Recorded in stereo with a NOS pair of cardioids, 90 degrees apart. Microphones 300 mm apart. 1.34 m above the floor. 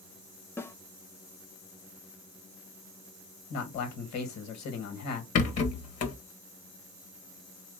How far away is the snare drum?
About 0.5 m.